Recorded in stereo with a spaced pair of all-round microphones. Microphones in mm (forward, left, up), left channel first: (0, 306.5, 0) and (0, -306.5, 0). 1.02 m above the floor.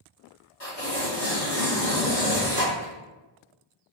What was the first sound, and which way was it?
Tearing paper, 60° left (ahead or behind).